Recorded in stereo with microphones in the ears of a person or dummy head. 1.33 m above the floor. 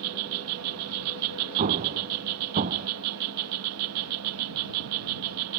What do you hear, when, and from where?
0.0 s an insect: 85° right
1.6 s an explosion: 40° right (ahead or behind)